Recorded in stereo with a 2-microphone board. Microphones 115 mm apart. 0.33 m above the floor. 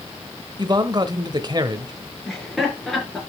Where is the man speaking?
40° right (ahead or behind), 1.0 m.